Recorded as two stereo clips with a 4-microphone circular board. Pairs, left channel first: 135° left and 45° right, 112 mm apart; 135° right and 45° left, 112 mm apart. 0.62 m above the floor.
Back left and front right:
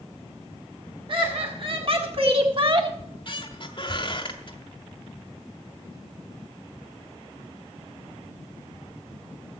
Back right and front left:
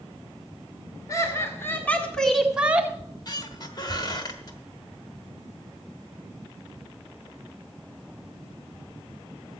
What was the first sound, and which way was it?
Laughter, 80° right.